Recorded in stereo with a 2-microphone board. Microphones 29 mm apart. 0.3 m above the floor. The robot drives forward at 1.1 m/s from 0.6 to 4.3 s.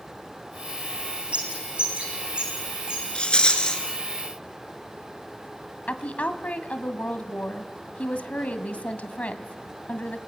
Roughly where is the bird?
Right.